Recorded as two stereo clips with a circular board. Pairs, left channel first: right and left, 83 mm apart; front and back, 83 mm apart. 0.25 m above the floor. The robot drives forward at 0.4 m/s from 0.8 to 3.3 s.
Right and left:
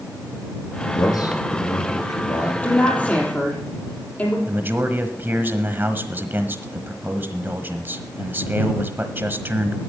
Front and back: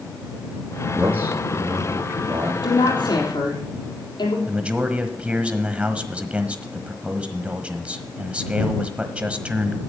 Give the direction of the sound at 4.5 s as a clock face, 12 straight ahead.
8 o'clock.